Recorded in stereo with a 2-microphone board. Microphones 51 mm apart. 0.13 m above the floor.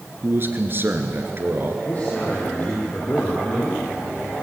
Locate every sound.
0.2 s a man speaking: 45° right (ahead or behind), 1.9 m
1.9 s a man speaking: 30° left (ahead or behind), 4.5 m